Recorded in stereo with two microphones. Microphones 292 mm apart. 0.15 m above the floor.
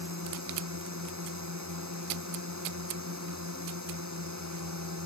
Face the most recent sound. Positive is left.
turn(degrees=-70)  # may be behind; listen again after turning